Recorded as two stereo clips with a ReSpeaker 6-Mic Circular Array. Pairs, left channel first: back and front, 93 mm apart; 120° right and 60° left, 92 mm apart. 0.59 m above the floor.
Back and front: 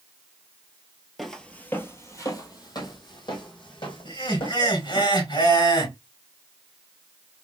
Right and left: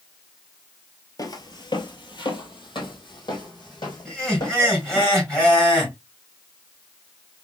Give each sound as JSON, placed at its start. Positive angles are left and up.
{"t": 1.2, "sound": "footsteps", "azimuth_deg": -90, "distance_m": 0.8}
{"t": 4.0, "sound": "laughter", "azimuth_deg": 160, "distance_m": 3.5}